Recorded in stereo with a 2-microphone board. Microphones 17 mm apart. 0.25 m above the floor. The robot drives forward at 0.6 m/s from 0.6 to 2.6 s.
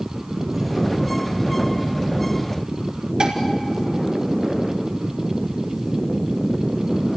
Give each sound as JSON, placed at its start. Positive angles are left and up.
{"t": 3.2, "sound": "dishes clattering", "side_deg": -60, "distance_m": 2.5}